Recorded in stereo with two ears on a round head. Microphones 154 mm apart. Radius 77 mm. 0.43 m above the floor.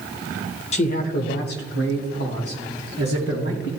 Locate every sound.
0.7 s a man speaking: 40° left (ahead or behind), 0.9 m; by 3.7 s 70° left (ahead or behind), 4 m